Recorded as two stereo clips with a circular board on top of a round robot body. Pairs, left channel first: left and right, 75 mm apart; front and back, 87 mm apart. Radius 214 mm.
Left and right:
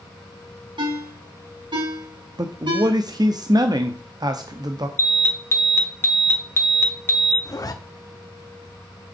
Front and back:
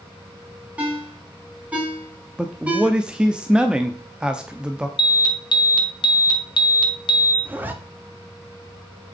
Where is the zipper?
115° left, 1.7 m.